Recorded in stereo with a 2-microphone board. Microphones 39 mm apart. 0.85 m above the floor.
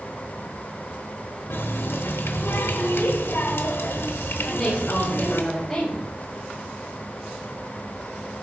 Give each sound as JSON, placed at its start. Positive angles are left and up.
{"t": 1.5, "sound": "a running tap", "side_deg": 75, "distance_m": 0.9}
{"t": 4.4, "sound": "a woman speaking", "side_deg": 5, "distance_m": 3.0}